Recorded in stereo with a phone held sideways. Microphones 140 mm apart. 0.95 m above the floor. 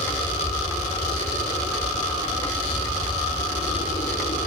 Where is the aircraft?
70° left (ahead or behind); by 4.5 s 65° left (ahead or behind).